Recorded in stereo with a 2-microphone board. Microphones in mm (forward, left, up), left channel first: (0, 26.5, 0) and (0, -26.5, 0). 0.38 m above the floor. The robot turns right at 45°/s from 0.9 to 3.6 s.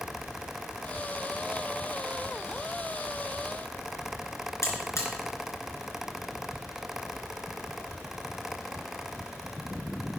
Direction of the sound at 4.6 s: 60° left (ahead or behind).